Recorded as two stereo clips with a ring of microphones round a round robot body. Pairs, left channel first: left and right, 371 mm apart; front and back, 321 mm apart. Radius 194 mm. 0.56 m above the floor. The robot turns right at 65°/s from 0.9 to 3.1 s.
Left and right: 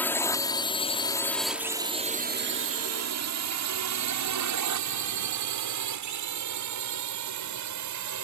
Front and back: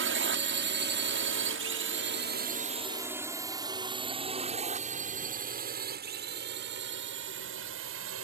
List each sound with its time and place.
0.0 s a drone: 170° left; by 8.2 s 130° right